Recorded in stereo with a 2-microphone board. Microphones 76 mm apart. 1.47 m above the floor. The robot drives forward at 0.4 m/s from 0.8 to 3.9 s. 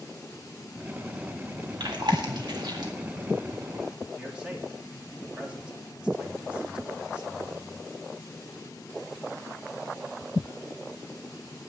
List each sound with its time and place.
1.8 s chewing: 75° right (ahead or behind), 2.0 m
4.2 s a man speaking: 15° right (ahead or behind), 3 m